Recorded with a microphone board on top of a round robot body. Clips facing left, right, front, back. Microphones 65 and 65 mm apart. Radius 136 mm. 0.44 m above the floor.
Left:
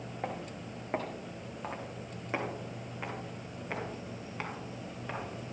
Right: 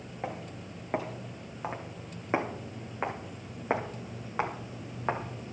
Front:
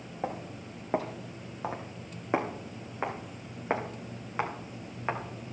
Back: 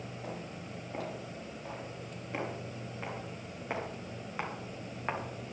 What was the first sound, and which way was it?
Footsteps, straight ahead.